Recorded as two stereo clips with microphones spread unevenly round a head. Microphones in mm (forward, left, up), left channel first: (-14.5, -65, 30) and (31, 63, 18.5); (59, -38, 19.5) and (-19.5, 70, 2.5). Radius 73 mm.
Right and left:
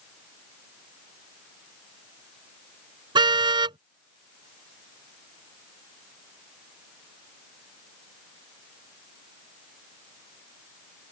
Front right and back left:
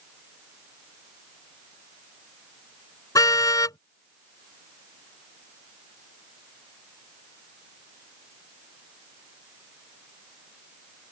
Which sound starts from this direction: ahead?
A car horn, at 3.1 s.